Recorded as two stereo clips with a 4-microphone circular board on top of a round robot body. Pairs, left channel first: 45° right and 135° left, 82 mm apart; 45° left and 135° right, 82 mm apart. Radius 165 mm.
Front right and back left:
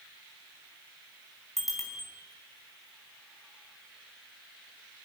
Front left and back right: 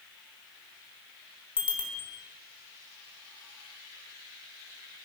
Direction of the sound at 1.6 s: 45° left.